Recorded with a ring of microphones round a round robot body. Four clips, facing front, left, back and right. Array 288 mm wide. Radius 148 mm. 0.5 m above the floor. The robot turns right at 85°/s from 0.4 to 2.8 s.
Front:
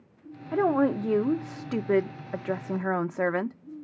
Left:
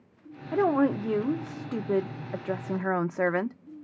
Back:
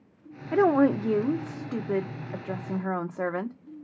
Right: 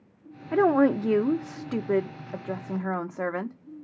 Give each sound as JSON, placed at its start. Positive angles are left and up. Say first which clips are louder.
{"t": 0.5, "sound": "a woman speaking", "louder": "right 3 dB, back 3 dB", "azimuth_deg": -140, "distance_m": 0.9}